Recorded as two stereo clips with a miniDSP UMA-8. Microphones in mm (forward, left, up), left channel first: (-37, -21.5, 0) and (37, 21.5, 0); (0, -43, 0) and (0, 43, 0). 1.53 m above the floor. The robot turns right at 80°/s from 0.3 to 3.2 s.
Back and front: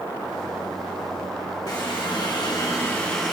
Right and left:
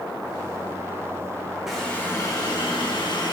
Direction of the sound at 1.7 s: 170° left.